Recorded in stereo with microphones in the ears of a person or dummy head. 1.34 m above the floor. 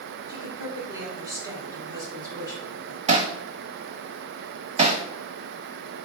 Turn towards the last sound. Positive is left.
turn(degrees=-25)  # may be behind; listen again after turning